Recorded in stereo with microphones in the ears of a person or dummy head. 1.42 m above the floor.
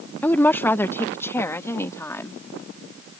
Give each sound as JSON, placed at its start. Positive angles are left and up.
{"t": 0.2, "sound": "a woman speaking", "side_deg": 5}